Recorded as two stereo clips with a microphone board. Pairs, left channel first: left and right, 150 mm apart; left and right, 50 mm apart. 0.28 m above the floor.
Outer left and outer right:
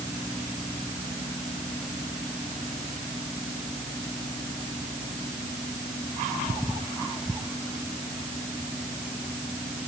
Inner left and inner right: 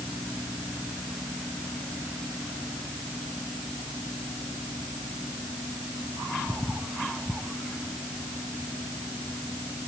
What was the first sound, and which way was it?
Only background noise.